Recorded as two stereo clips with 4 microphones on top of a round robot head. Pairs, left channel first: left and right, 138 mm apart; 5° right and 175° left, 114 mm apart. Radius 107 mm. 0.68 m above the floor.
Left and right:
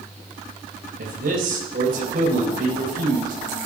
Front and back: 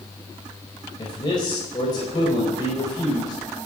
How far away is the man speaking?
About 4 m.